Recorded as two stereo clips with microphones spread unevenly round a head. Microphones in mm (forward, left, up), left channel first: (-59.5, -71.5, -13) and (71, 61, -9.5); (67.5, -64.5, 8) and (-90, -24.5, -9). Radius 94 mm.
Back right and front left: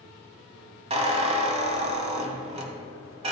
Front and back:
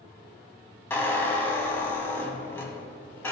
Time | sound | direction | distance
0.9 | a squeak | 40° left | 1.0 m